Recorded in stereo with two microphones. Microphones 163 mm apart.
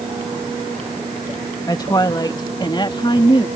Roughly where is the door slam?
I don't hear a door slam.